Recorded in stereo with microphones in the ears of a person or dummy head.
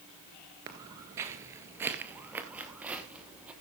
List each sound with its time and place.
0.7 s footsteps: 20° right (ahead or behind), 1.6 m; by 3.5 s 10° right (ahead or behind), 3 m